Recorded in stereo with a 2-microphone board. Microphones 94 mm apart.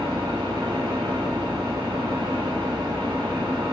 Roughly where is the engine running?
Right.